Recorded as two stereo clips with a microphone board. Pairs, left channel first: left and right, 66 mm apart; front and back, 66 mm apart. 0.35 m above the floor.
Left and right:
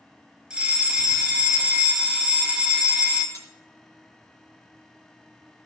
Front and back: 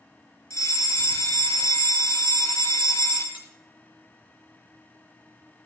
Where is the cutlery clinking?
115° right, 3.5 m.